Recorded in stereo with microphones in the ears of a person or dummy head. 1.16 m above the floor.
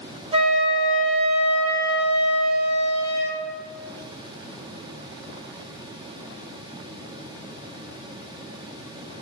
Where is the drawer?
No drawer in this recording.